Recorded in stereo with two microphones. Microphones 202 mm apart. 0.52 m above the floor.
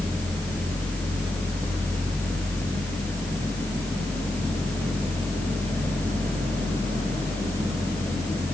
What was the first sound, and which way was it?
Only background noise.